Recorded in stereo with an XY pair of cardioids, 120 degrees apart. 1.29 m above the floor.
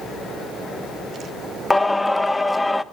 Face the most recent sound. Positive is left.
turn(degrees=10)